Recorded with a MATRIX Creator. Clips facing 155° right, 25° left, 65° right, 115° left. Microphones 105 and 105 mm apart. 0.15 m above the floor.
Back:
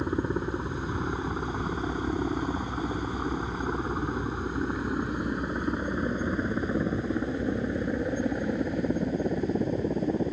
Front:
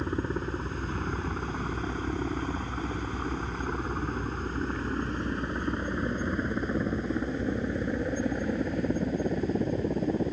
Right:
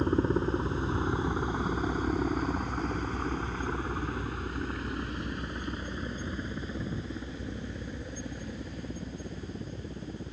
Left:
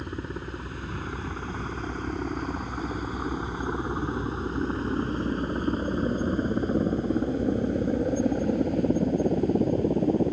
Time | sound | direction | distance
0.0 | a helicopter | 85° right | ?